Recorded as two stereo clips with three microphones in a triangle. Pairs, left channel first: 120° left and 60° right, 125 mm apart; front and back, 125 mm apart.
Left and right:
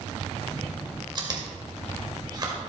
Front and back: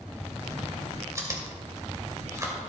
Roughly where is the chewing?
Behind right.